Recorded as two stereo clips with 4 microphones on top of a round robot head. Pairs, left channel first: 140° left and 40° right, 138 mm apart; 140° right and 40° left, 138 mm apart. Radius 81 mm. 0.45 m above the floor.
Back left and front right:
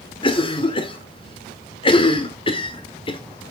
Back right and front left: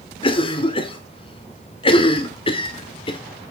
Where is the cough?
Straight behind, 1.1 m.